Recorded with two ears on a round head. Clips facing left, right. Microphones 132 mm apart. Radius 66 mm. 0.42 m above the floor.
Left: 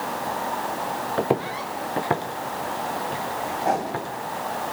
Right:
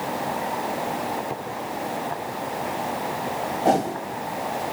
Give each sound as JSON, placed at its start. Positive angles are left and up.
{"t": 1.2, "sound": "footsteps", "side_deg": 70, "distance_m": 2.0}
{"t": 3.6, "sound": "a whoosh", "side_deg": -40, "distance_m": 2.5}